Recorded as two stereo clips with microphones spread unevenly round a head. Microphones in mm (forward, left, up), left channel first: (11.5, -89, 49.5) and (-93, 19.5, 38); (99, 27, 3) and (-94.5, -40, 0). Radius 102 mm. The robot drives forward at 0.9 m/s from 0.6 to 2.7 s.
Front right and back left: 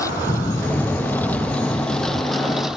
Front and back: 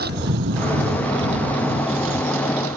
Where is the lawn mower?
115° right; by 2.8 s 140° right.